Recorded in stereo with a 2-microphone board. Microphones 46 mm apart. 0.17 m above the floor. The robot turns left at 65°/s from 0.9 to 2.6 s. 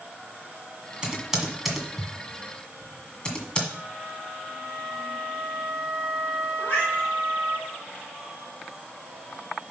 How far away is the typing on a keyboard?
About 1.6 m.